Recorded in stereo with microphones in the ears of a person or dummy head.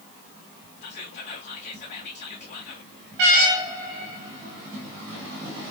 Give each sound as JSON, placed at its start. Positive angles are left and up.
{"t": 0.8, "sound": "whispering", "side_deg": 35, "distance_m": 0.8}